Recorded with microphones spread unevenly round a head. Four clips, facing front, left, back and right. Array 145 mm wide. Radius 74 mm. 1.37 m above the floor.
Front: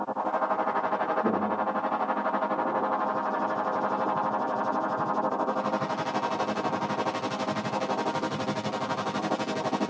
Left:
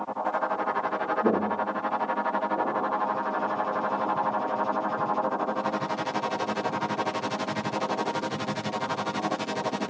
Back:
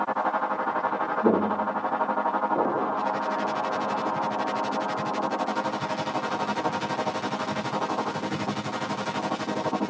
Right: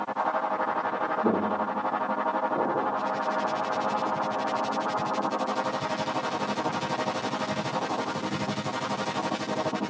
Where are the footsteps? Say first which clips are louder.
Even, back 4 dB; 155° left, 2 m; by 4.0 s 155° right, 4 m.